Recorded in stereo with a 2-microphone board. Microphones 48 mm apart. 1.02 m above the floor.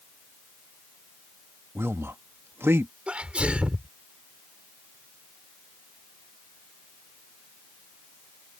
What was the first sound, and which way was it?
A man speaking, 60° right (ahead or behind).